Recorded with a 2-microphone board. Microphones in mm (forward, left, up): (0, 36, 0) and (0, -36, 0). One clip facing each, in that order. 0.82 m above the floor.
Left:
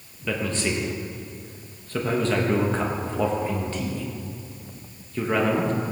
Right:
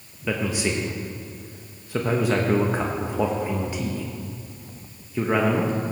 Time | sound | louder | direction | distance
0.3 | a man speaking | right 1 dB | 10° right (ahead or behind) | 0.8 m